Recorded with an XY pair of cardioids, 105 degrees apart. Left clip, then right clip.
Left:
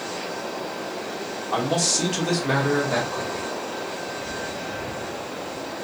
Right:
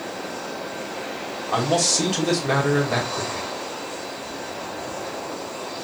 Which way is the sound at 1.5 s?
15° right.